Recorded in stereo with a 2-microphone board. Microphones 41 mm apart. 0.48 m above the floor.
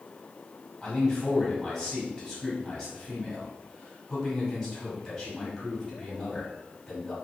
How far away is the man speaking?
About 1.5 m.